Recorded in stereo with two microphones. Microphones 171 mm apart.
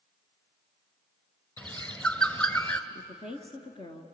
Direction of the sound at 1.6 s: 10° left (ahead or behind).